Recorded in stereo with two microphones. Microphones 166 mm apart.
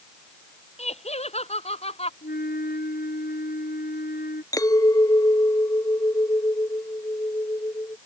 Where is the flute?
70° left (ahead or behind).